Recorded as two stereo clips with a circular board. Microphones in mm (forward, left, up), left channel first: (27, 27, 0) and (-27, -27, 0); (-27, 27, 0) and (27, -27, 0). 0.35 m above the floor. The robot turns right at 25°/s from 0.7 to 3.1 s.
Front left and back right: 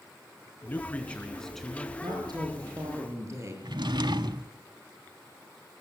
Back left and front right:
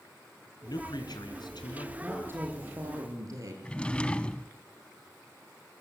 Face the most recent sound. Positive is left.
turn(degrees=-150)